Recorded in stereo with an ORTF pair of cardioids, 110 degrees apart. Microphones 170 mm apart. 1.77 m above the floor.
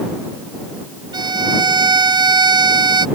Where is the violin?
25° right.